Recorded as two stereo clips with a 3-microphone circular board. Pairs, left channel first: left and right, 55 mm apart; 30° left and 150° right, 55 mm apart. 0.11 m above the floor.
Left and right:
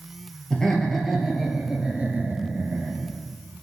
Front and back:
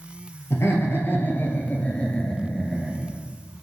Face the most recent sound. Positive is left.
turn(degrees=-65)